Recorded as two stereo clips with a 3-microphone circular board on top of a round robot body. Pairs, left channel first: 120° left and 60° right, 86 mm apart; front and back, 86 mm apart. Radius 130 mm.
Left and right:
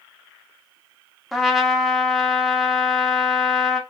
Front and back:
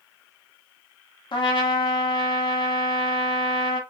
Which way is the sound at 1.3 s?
30° left.